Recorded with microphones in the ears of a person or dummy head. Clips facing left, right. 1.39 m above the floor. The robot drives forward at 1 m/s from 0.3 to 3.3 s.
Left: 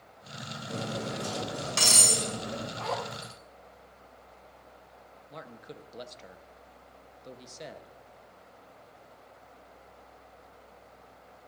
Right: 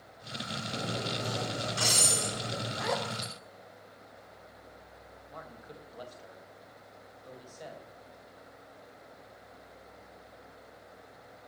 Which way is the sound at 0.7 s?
85° left.